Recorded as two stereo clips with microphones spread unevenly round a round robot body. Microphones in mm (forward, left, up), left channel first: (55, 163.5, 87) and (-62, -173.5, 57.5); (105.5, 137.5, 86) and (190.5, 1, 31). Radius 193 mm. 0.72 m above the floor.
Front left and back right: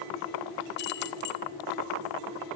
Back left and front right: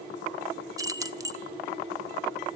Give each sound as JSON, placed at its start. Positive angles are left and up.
{"t": 0.8, "sound": "keys jangling", "azimuth_deg": 10, "distance_m": 1.1}